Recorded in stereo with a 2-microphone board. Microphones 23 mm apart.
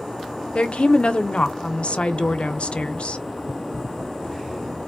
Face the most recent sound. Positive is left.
turn(degrees=60)  # may be behind; listen again after turning